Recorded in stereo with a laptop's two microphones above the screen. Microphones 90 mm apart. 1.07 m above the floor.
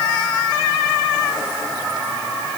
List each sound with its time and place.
Only background noise.